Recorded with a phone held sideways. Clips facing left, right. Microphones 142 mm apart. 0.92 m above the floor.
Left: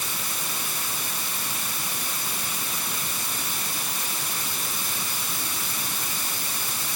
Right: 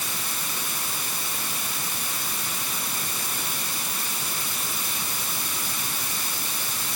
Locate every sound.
Only background noise.